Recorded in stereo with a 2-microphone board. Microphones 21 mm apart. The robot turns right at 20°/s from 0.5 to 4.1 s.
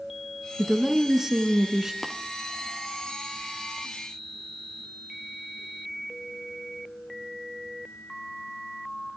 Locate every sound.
0.6 s a woman speaking: 20° right (ahead or behind), 1.1 m
2.0 s tapping: 5° right (ahead or behind), 1.8 m